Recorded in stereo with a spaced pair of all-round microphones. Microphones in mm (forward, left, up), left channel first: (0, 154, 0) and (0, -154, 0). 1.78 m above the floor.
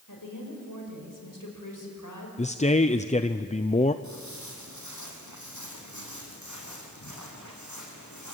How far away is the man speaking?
About 0.6 m.